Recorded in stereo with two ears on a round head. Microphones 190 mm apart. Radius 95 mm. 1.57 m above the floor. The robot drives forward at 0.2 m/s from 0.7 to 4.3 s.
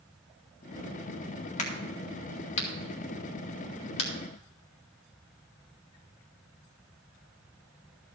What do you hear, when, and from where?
1.6 s a crack: 35° left (ahead or behind), 2 m; by 4.1 s 30° left (ahead or behind), 2.5 m